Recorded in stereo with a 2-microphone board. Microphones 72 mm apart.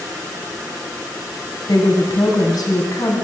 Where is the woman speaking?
60° left (ahead or behind), 2.5 m.